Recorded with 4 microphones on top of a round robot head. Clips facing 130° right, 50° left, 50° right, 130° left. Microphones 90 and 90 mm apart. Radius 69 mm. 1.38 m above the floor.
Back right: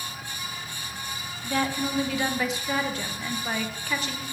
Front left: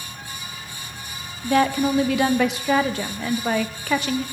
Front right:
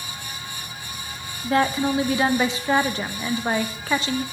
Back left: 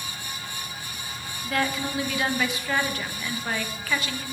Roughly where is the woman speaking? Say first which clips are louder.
Front left 8 dB, front right 7 dB; ahead.